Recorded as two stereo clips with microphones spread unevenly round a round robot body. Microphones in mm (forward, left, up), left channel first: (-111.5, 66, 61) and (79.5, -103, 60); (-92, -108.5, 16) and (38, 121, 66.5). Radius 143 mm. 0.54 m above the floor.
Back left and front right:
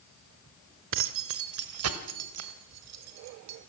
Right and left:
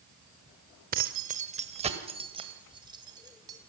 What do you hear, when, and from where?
0.9 s keys jangling: straight ahead, 1.3 m; by 3.6 s 20° right, 3 m